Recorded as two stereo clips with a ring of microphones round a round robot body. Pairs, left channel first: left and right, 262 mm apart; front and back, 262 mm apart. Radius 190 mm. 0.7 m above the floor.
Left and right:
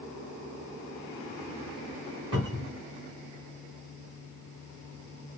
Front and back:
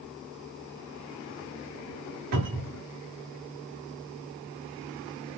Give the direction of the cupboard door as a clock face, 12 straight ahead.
6 o'clock.